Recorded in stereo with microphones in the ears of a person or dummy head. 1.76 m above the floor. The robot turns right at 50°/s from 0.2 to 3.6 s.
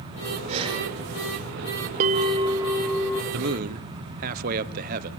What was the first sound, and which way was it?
Breathing, 35° right (ahead or behind).